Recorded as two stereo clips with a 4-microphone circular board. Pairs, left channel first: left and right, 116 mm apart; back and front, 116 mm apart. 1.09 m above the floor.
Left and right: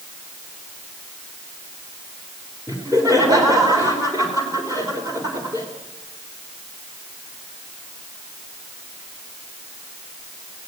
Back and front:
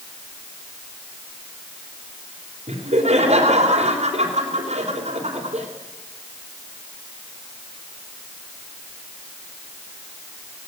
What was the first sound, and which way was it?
Laughter, 30° right.